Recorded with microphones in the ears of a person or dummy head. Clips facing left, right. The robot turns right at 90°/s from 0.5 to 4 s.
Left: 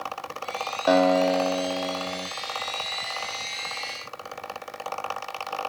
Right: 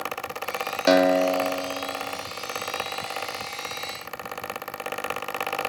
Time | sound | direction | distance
0.9 | a guitar | 30° right | 0.5 m